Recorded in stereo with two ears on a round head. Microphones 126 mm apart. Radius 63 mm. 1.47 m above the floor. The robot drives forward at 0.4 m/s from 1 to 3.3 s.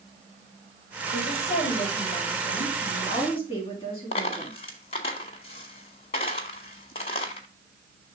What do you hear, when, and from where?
1.1 s a woman speaking: 50° left (ahead or behind), 3 m; by 4.6 s 40° left (ahead or behind), 4 m
4.1 s a dropped coin: 45° left (ahead or behind), 1.9 m